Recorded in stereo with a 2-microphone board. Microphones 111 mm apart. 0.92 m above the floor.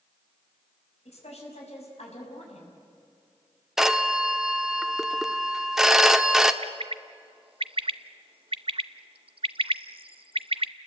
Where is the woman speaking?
75° left (ahead or behind), 6 m.